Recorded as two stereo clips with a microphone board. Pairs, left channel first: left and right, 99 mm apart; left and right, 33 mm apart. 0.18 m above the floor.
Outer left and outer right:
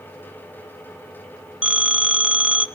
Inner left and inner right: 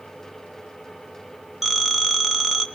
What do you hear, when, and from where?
1.6 s a phone ringing: 10° right (ahead or behind), 1.3 m